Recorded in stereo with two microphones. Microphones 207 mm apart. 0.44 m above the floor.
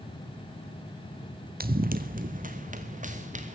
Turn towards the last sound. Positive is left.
turn(degrees=-35)  # may be behind; listen again after turning